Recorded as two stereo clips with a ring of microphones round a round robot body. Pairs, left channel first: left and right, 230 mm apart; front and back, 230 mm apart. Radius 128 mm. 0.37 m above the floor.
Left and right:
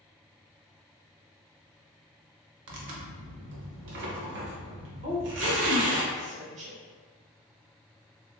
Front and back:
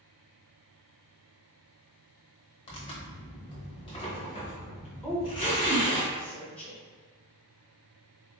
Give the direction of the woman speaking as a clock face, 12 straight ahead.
3 o'clock.